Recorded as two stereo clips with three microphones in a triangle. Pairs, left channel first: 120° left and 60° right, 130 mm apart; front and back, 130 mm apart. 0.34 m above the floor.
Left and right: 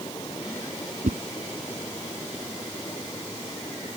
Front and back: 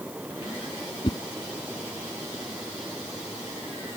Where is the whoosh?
50° right.